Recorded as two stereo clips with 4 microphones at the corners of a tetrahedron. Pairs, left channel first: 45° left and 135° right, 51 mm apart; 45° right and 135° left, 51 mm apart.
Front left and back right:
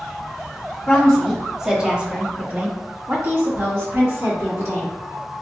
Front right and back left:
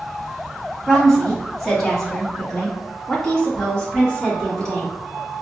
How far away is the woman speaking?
About 1.3 m.